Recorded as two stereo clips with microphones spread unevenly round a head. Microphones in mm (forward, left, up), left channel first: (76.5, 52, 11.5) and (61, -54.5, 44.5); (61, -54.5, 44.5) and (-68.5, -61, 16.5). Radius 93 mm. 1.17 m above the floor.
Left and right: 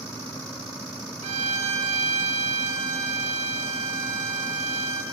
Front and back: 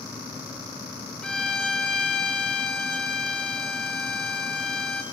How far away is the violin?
About 1.7 m.